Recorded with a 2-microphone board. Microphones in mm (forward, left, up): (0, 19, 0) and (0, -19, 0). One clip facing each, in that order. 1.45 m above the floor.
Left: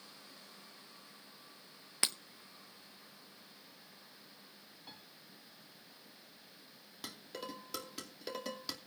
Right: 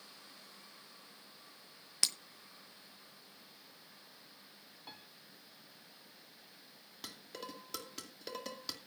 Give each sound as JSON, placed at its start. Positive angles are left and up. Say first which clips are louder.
{"t": 2.0, "sound": "breaking glass", "louder": "left 1 dB", "side_deg": 25, "distance_m": 0.7}
{"t": 4.9, "sound": "a piano", "louder": "right 2 dB", "side_deg": -20, "distance_m": 1.3}
{"t": 7.0, "sound": "dishes clattering", "louder": "left 2 dB", "side_deg": 5, "distance_m": 2.5}